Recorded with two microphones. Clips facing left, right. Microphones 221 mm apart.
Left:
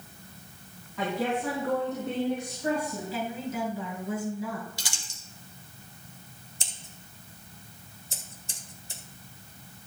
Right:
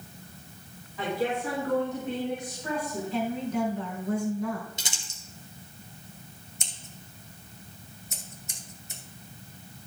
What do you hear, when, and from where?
1.0 s a woman speaking: 75° left (ahead or behind), 4.5 m; by 3.0 s 60° left (ahead or behind), 3.5 m
3.1 s a woman speaking: 5° left (ahead or behind), 4.5 m
4.8 s crumpling: 25° right (ahead or behind), 1.9 m
6.6 s scissors: 30° left (ahead or behind), 1.5 m